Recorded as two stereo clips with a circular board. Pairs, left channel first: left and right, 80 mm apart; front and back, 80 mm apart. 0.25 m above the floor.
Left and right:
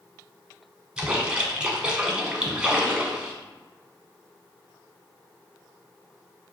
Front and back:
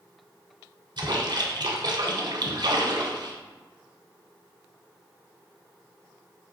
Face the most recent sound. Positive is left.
turn(degrees=-170)